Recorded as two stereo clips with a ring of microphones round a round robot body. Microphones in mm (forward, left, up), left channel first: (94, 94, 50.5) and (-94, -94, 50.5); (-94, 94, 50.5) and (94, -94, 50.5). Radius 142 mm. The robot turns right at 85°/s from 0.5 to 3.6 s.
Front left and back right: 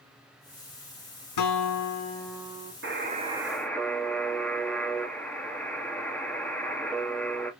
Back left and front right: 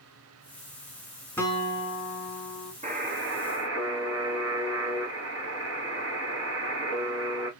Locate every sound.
1.4 s a guitar: 50° left, 1.2 m; by 2.7 s 165° left, 1.2 m
2.8 s a buzzer: 105° right, 1.5 m; by 7.5 s 40° right, 1.5 m